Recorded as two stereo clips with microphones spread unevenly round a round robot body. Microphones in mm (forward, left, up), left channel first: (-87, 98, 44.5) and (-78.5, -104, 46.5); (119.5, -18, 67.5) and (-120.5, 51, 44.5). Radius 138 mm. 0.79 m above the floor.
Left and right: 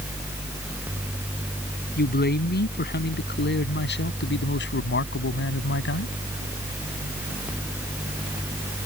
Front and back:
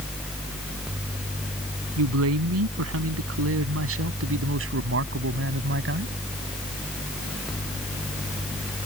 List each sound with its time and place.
2.0 s a man speaking: 135° left; by 6.1 s 115° left